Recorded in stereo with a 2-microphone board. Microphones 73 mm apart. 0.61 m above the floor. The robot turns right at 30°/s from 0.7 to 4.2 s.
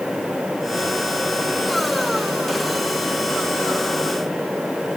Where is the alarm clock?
No alarm clock in this recording.